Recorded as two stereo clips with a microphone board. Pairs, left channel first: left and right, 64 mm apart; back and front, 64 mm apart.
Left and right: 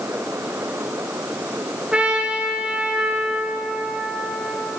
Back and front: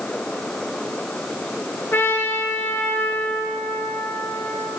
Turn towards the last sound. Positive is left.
turn(degrees=-150)